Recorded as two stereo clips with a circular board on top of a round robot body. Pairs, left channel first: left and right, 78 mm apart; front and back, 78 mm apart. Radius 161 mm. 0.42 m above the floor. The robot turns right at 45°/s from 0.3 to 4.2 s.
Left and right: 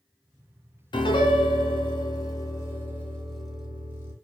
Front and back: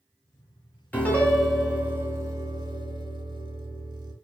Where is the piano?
70° left, 1.0 m; by 4.1 s 145° right, 1.0 m.